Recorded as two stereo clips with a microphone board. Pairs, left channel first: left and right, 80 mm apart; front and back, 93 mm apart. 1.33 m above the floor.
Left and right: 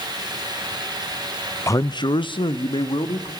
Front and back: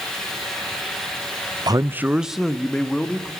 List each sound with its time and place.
1.7 s a man speaking: 140° left, 0.6 m; by 3.3 s 80° left, 2 m